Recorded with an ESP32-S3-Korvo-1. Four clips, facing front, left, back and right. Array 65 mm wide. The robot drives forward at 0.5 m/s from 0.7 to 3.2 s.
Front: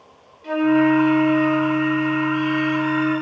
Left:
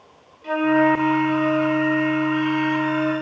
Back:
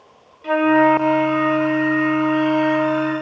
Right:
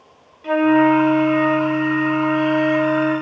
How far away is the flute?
About 0.9 m.